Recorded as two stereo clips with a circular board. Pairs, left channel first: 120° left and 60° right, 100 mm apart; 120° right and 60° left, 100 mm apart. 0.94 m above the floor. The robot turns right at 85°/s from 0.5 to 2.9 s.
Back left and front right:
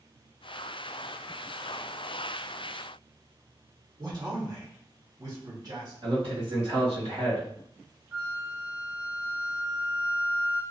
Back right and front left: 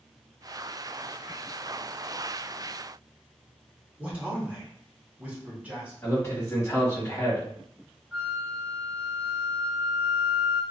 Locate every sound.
4.0 s a man speaking: 15° right, 1.4 m
6.0 s a man speaking: 60° right, 1.7 m
8.1 s a flute: 5° right, 0.9 m